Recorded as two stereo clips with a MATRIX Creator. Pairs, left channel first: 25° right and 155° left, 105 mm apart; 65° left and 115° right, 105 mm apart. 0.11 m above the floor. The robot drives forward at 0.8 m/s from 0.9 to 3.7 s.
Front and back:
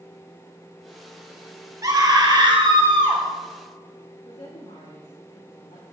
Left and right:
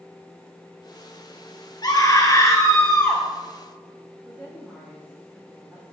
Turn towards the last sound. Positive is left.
turn(degrees=-40)